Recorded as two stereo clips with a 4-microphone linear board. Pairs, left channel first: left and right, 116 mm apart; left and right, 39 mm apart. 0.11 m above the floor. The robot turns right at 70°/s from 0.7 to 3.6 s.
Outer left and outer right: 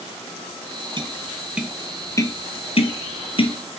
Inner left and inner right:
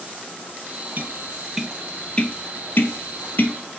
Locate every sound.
1.0 s tapping: 45° right (ahead or behind), 1.0 m; by 3.5 s 45° left (ahead or behind), 1.0 m